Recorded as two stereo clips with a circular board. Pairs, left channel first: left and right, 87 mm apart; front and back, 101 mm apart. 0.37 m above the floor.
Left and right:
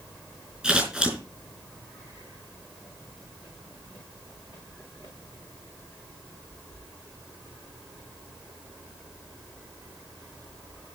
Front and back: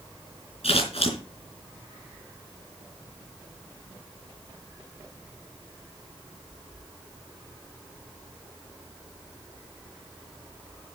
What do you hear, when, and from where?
0.6 s scissors: 15° right, 4.5 m